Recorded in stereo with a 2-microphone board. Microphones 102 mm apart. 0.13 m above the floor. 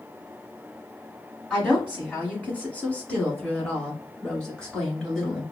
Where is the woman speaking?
15° left (ahead or behind), 1.4 m; by 5.4 s 5° left (ahead or behind), 2 m.